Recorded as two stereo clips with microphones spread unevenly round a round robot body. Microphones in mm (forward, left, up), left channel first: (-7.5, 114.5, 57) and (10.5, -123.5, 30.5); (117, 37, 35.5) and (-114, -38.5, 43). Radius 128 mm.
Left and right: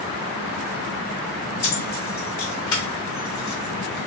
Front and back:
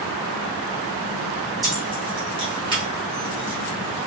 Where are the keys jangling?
130° left, 2.5 m.